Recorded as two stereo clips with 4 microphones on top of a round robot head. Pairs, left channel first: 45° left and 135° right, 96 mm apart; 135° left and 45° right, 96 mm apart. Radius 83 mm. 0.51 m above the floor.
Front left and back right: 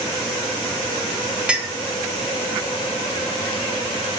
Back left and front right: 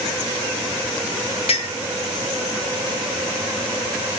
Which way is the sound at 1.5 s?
140° left.